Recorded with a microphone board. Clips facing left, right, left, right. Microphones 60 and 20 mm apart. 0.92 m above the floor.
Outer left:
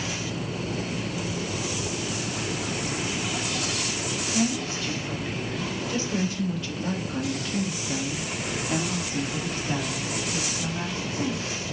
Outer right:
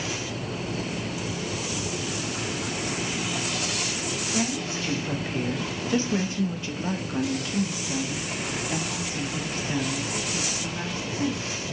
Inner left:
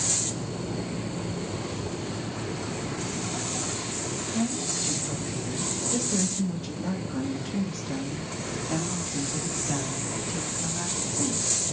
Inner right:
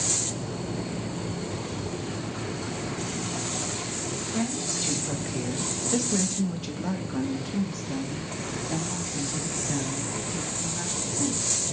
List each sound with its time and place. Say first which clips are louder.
4.3 s a woman speaking: outer left 2 dB, inner left 1 dB; 40° right (ahead or behind), 2 m; by 11.5 s 30° left (ahead or behind), 3 m